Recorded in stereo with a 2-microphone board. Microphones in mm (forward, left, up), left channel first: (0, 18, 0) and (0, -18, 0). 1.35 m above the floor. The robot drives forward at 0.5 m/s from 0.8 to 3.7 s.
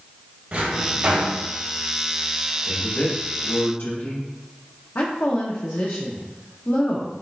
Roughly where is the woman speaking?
Left.